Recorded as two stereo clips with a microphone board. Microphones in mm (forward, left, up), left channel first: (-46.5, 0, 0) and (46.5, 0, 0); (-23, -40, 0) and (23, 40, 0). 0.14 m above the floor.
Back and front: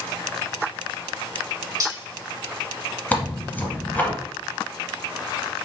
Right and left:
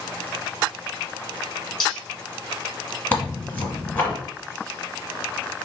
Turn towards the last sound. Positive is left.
turn(degrees=-145)